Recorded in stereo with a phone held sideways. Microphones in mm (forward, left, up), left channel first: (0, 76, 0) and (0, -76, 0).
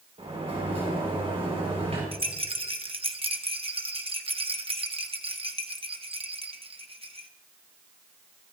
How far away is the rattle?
About 0.8 m.